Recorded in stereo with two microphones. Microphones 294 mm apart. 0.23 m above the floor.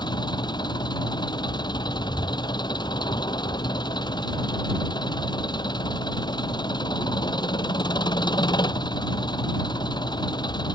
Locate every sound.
0.0 s an engine running: 15° left (ahead or behind)